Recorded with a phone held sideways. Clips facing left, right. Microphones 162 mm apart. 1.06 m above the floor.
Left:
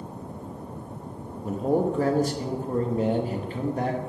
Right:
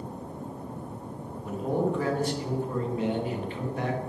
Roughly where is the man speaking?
Left.